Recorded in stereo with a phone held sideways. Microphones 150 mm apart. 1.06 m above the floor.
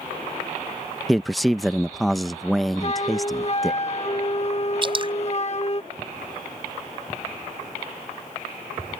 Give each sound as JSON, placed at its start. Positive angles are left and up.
{"t": 1.1, "sound": "a man speaking", "side_deg": 0}
{"t": 2.8, "sound": "a flute", "side_deg": 45}
{"t": 4.8, "sound": "dripping", "side_deg": -35}